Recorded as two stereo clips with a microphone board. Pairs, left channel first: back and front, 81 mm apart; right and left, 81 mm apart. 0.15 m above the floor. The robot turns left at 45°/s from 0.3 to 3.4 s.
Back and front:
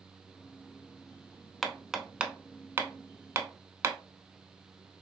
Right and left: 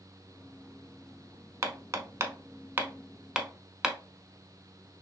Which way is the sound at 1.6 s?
95° left.